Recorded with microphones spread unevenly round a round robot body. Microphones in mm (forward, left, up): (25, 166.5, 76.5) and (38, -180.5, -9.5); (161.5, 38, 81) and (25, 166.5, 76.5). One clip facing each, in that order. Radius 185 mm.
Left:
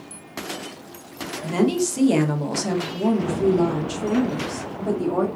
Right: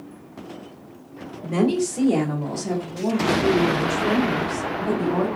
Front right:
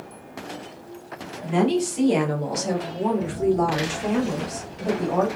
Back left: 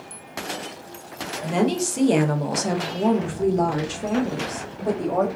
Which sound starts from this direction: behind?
A woman speaking, at 1.4 s.